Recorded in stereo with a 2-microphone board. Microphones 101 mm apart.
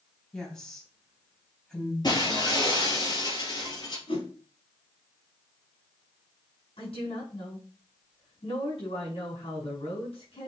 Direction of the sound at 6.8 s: 65° left (ahead or behind).